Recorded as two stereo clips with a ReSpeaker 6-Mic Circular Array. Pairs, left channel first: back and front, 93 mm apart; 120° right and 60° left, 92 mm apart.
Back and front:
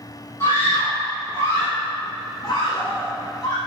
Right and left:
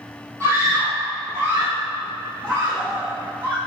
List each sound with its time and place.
0.4 s a scream: 115° left, 4.5 m; by 3.6 s 130° left, 7 m